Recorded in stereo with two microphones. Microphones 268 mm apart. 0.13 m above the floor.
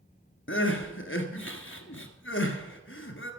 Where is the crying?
50° left (ahead or behind), 1.4 m.